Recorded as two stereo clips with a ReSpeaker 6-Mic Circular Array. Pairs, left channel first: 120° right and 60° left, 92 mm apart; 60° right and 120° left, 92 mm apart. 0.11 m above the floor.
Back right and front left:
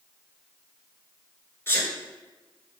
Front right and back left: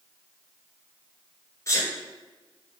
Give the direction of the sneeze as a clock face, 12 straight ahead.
3 o'clock.